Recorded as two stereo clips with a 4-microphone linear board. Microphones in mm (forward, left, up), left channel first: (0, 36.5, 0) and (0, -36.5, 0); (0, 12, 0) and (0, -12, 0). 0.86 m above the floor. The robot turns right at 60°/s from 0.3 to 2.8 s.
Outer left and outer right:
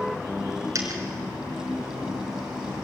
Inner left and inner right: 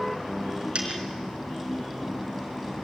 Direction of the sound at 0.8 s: 45° right (ahead or behind).